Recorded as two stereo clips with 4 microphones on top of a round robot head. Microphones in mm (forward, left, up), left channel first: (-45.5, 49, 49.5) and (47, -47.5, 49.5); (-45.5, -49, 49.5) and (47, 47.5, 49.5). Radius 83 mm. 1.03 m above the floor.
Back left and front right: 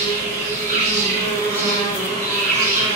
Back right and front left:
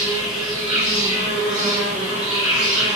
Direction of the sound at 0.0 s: 35° right.